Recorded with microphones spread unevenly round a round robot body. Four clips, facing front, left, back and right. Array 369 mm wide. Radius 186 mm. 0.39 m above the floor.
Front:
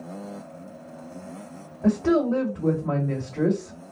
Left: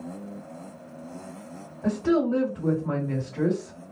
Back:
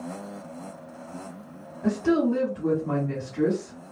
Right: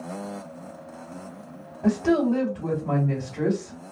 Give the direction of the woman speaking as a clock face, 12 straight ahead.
1 o'clock.